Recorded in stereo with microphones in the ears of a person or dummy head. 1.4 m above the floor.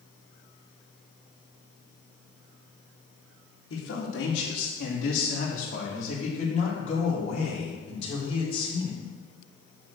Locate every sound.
3.7 s a man speaking: 75° left (ahead or behind), 2.5 m; by 9.0 s 30° left (ahead or behind), 4.5 m